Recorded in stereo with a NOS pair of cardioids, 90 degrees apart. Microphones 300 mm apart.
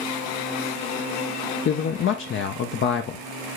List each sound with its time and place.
1.6 s a man speaking: 45° left, 0.5 m